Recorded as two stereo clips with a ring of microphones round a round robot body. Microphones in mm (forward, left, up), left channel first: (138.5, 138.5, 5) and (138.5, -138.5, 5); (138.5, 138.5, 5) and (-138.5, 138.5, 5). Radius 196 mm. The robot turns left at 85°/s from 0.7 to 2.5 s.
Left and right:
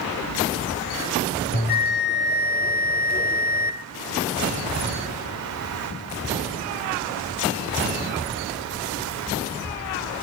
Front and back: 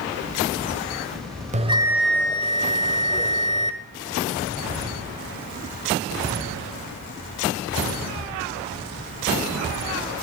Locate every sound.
1.5 s a bell: 135° left, 1.5 m; by 3.8 s 50° left, 1.5 m